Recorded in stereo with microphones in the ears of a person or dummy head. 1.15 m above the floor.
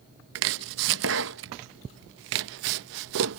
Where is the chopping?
70° right (ahead or behind).